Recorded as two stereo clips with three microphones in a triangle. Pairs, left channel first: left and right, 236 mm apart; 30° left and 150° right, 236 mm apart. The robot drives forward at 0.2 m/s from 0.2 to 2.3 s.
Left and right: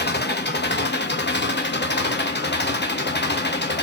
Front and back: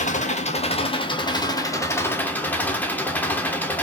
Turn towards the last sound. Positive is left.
turn(degrees=110)